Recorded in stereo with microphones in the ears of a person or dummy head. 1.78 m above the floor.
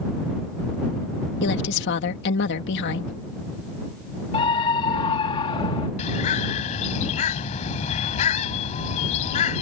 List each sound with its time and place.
1.4 s a woman speaking: 70° left (ahead or behind)
4.3 s a scream: 35° left (ahead or behind)
6.0 s a bird: 45° left (ahead or behind)